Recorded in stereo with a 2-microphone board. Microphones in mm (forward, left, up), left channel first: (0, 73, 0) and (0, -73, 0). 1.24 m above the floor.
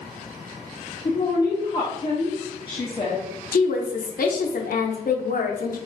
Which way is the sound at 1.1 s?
30° left (ahead or behind).